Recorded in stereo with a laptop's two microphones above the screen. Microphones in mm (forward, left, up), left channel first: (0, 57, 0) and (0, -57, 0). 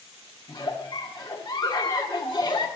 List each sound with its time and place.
0.5 s a giggle: 35° left (ahead or behind), 1.0 m